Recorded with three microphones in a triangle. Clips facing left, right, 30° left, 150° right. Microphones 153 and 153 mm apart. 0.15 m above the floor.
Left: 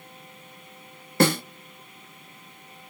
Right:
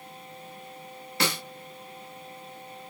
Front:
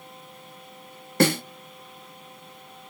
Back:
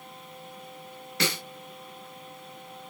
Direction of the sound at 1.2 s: 60° left.